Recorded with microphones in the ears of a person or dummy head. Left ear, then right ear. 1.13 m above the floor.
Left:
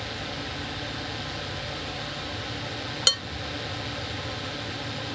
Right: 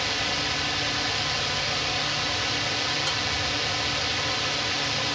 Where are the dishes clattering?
40° left (ahead or behind).